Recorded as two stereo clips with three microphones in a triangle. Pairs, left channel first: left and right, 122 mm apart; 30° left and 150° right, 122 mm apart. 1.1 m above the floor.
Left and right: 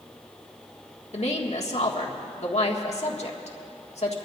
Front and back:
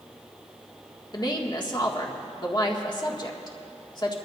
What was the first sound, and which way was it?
A woman speaking, 80° left.